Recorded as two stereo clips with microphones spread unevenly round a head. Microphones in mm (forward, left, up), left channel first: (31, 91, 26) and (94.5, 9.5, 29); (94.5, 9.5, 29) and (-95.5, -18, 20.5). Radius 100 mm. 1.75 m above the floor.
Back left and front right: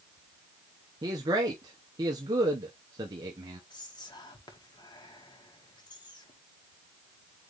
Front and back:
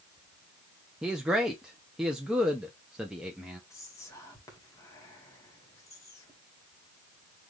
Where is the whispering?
80° left, 2 m.